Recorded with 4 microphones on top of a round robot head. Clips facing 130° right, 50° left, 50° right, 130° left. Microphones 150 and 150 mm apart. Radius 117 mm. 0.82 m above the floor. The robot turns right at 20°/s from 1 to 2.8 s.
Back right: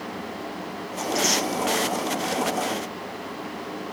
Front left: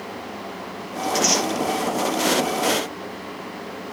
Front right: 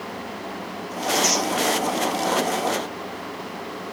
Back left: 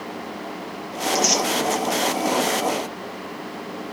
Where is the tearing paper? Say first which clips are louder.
Front left 3 dB, back left 1 dB; 95° left, 3.5 m; by 1.4 s 105° left, 3.5 m.